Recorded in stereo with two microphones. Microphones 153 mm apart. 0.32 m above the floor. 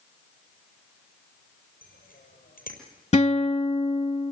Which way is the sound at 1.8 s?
65° left (ahead or behind).